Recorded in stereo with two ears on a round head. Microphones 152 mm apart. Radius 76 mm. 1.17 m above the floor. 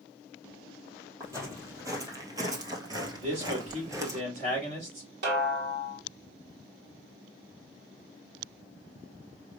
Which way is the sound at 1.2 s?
20° right (ahead or behind).